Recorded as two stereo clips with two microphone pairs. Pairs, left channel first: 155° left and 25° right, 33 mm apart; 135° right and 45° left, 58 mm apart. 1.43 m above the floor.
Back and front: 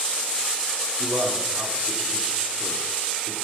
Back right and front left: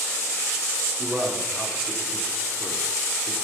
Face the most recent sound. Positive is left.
turn(degrees=-35)